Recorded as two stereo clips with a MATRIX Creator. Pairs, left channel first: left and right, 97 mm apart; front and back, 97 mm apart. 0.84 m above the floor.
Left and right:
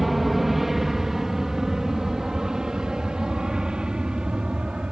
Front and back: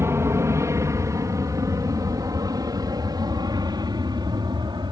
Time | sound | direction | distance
0.0 | an aircraft | 175° right | ?